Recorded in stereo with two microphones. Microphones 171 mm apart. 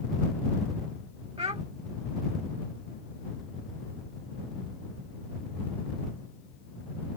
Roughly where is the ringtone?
I don't hear a ringtone.